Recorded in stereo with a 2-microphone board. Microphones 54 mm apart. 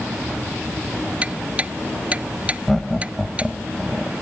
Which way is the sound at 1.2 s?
20° right (ahead or behind).